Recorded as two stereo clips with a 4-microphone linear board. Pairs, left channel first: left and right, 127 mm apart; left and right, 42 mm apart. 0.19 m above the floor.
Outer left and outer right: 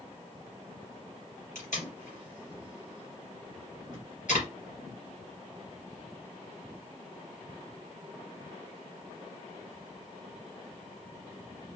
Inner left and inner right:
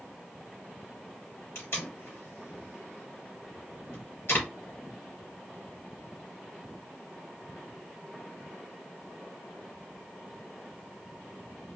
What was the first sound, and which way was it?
Tape being pulled, 70° left (ahead or behind).